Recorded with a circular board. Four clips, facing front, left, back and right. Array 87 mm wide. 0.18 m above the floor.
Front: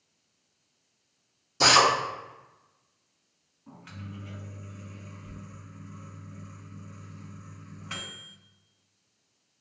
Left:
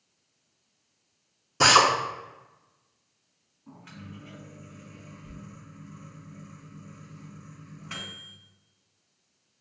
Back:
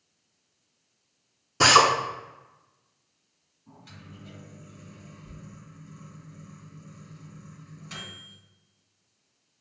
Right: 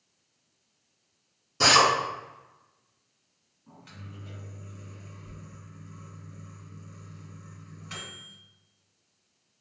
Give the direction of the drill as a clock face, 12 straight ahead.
7 o'clock.